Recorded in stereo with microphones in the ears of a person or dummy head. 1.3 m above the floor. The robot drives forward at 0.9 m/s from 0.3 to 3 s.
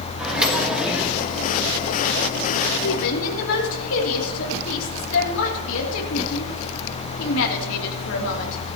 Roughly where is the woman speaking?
Left.